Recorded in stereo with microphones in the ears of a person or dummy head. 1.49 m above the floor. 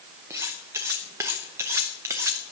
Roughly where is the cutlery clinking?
Centre.